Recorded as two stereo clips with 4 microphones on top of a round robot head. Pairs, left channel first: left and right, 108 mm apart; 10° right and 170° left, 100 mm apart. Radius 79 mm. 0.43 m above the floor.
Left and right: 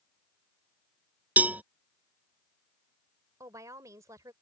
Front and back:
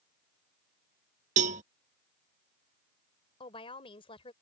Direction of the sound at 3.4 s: 30° right.